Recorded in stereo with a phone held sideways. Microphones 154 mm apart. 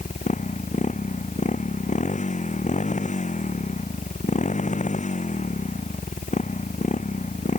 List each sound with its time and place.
0.0 s a motorcycle: 55° left (ahead or behind)